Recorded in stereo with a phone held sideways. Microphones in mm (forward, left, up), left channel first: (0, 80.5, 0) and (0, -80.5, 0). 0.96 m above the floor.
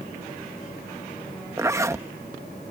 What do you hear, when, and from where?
1.6 s a zipper: 15° right (ahead or behind)